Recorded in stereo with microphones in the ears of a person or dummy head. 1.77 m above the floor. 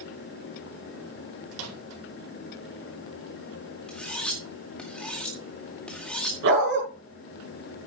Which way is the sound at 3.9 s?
Centre (ahead or behind).